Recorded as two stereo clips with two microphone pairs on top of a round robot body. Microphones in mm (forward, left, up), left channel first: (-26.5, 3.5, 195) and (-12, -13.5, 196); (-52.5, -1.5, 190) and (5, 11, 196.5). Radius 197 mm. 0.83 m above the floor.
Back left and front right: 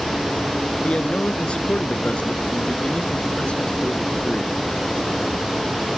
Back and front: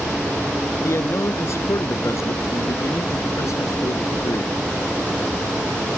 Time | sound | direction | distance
0.8 | a man speaking | 155° left | ?